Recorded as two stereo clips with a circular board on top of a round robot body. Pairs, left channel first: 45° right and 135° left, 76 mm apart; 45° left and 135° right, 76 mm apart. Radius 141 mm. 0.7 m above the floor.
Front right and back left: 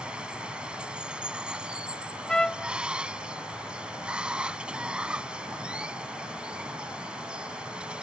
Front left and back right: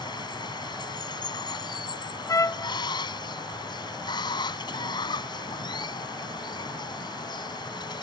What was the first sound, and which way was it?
Running water, 60° left.